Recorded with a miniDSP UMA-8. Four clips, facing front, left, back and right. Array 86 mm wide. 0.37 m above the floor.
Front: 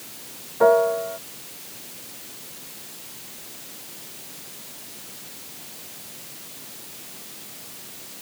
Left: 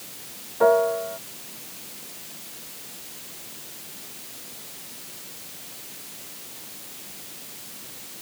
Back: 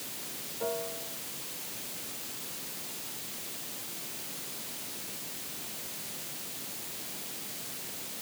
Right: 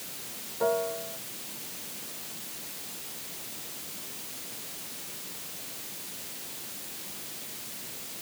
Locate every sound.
0.6 s a piano: 35° left